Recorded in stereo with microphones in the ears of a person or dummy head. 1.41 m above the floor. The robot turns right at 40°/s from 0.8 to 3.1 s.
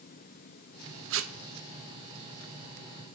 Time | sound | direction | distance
1.1 | tape being pulled | 70° right (ahead or behind) | 1.1 m